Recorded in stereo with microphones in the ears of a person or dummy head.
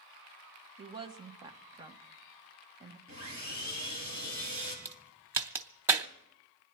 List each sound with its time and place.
0.8 s a woman speaking: 25° right (ahead or behind), 1.3 m
3.1 s sawing: 35° right (ahead or behind), 8.5 m
4.8 s a crack: 10° right (ahead or behind), 0.9 m